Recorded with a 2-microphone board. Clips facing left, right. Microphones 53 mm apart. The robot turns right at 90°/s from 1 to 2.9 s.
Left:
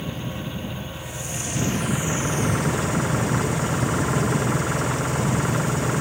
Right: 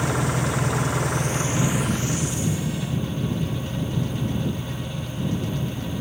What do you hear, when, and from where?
0.0 s an engine running: 75° right; by 6.0 s 95° left